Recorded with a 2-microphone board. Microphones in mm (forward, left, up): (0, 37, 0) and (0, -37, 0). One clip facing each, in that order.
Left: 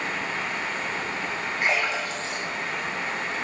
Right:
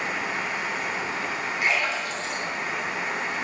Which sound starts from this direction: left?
A splash, at 1.6 s.